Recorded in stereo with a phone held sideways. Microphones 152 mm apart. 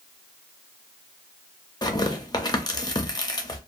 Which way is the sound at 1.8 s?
25° left (ahead or behind).